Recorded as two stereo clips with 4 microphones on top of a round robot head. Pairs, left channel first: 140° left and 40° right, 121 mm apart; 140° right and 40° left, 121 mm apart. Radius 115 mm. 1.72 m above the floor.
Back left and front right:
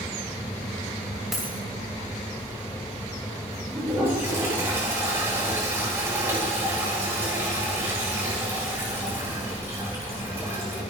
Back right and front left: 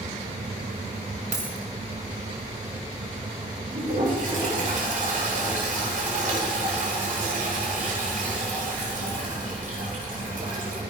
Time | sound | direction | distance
1.3 | a dropped coin | 45° left | 1.6 m
3.7 | a toilet flushing | 30° left | 8.5 m